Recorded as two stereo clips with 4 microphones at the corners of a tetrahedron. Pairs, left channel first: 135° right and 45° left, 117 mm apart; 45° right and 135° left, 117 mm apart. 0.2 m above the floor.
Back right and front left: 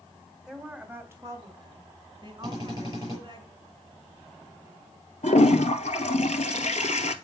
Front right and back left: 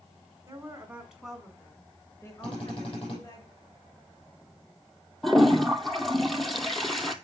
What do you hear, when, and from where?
0.5 s a woman speaking: 125° left, 1.7 m; by 3.4 s 5° left, 3.5 m
2.4 s a drill: 85° right, 6 m
5.2 s a toilet flushing: 135° right, 0.7 m